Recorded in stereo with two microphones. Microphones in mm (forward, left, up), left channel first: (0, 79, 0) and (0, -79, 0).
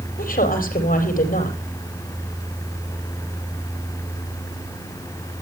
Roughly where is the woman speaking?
Left.